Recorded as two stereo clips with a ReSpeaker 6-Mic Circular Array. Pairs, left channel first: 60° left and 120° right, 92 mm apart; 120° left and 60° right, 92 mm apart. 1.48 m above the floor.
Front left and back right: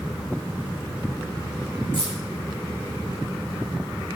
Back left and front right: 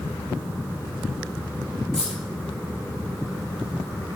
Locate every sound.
1.9 s keys jangling: 40° left, 7.5 m